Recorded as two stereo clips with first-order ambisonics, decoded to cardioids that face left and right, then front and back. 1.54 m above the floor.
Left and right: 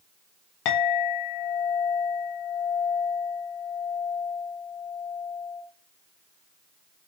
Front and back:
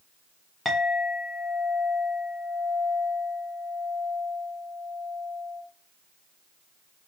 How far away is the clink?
About 1.0 m.